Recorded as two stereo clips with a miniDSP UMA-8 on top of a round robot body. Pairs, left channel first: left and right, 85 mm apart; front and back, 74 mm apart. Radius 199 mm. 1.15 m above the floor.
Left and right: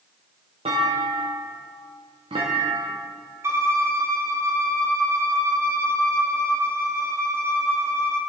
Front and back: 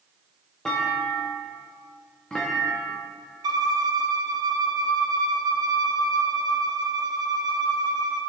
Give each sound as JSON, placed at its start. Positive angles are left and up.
{"t": 0.7, "sound": "a clunk", "azimuth_deg": -80, "distance_m": 0.7}
{"t": 3.4, "sound": "a violin", "azimuth_deg": -150, "distance_m": 0.9}